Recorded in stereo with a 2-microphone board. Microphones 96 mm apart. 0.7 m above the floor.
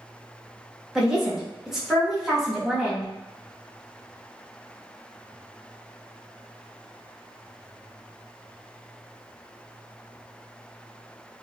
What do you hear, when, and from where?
0.9 s a woman speaking: 5° right (ahead or behind), 0.9 m